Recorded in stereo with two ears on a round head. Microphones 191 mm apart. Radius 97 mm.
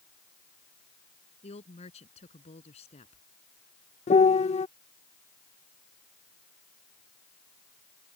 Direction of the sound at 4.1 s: 30° left (ahead or behind).